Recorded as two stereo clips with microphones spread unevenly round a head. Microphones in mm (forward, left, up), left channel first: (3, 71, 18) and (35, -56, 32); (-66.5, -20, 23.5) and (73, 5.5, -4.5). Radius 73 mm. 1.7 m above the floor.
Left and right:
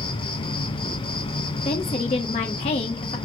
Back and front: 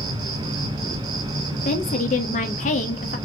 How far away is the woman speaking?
About 0.7 m.